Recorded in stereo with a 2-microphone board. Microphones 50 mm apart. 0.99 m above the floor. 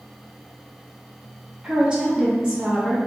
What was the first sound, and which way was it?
A woman speaking, 15° right (ahead or behind).